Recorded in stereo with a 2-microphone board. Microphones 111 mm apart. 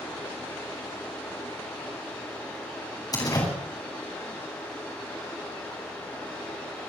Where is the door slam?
35° left (ahead or behind), 8 m.